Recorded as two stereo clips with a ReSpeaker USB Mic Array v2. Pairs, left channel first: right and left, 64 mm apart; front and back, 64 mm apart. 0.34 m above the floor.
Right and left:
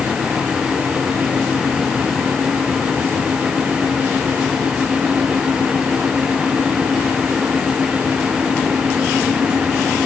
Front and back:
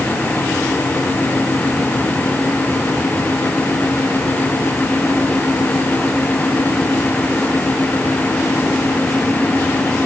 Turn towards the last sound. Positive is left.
No sound to turn to.